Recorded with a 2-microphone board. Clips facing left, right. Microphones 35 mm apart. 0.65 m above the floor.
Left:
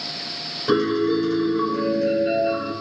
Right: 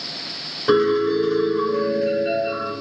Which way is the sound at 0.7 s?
20° right (ahead or behind).